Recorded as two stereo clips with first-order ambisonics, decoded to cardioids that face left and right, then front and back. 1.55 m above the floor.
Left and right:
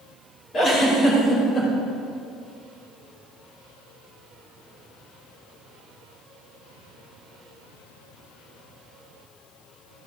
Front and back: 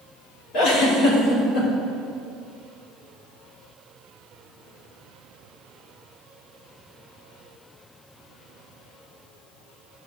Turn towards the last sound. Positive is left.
turn(degrees=30)